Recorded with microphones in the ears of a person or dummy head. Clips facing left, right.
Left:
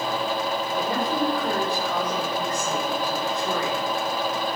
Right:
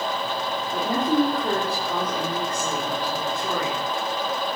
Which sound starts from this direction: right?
A woman speaking, at 0.7 s.